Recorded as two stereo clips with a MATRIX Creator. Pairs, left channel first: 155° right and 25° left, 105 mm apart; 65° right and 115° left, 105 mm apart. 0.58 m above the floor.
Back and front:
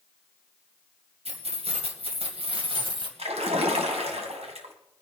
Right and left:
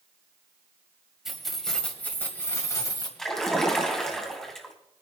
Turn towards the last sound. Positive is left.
turn(degrees=15)